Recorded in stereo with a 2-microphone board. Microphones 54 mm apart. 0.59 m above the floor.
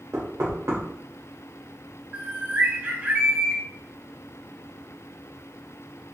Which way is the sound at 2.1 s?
30° right (ahead or behind).